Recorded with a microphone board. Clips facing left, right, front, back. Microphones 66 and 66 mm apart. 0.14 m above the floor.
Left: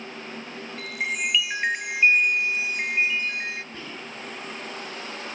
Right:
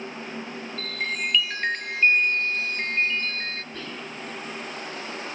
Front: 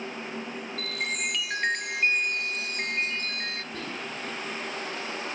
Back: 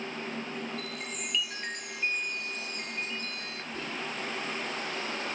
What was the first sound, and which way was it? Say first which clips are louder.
A chime: left 1 dB, front 6 dB; 10° left.